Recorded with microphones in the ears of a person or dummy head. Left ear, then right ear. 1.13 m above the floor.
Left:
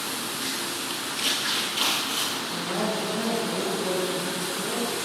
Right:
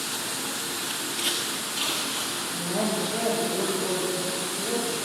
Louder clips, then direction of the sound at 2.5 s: Even; 25° right (ahead or behind).